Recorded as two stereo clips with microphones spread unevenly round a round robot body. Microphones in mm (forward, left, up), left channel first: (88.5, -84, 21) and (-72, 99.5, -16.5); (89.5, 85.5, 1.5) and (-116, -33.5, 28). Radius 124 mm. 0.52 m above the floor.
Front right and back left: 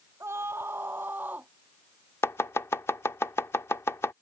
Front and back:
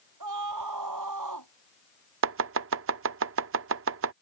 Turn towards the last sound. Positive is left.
turn(degrees=-135)